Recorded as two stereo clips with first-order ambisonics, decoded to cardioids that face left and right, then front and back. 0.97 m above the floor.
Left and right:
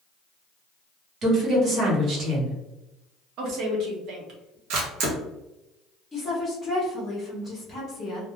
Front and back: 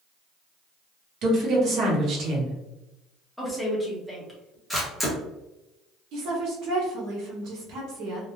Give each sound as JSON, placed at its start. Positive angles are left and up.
{"t": 1.2, "sound": "a woman speaking", "azimuth_deg": -145, "distance_m": 0.9}
{"t": 3.4, "sound": "a woman speaking", "azimuth_deg": -85, "distance_m": 0.9}
{"t": 4.7, "sound": "a camera shutter", "azimuth_deg": -90, "distance_m": 0.8}
{"t": 6.1, "sound": "a woman speaking", "azimuth_deg": 170, "distance_m": 1.4}